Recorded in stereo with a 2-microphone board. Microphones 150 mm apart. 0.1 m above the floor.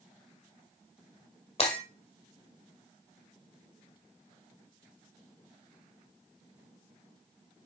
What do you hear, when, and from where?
1.6 s breaking glass: 45° left (ahead or behind), 2 m